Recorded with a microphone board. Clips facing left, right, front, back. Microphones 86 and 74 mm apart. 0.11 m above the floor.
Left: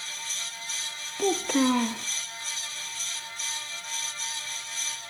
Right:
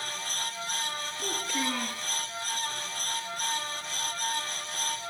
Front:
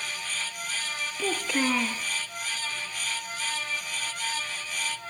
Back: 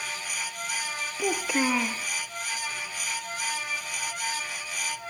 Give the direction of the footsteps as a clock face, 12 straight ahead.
I don't hear footsteps.